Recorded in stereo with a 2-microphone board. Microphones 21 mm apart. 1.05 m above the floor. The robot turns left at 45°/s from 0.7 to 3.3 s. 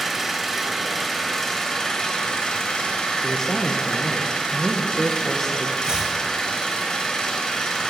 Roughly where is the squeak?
I don't hear a squeak.